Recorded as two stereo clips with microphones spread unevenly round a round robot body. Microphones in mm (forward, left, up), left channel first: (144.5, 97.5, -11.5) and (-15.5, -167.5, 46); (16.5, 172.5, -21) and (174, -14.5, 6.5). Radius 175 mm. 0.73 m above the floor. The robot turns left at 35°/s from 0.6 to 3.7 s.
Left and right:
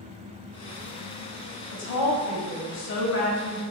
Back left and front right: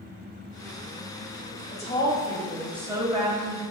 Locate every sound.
1.7 s a woman speaking: 70° left, 1.2 m; by 3.6 s 5° left, 1.2 m